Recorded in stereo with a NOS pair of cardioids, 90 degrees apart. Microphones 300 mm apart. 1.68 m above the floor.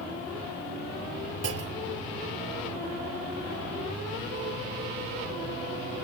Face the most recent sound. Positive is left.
turn(degrees=-50)